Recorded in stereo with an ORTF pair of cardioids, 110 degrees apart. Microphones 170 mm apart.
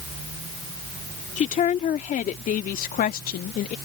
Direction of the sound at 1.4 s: 50° left.